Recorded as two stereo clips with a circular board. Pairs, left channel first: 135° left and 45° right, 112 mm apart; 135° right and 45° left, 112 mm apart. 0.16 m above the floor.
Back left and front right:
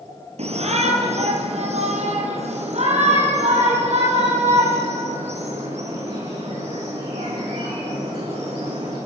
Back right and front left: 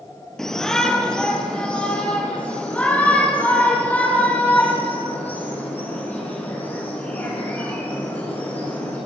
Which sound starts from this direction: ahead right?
A shout, at 0.4 s.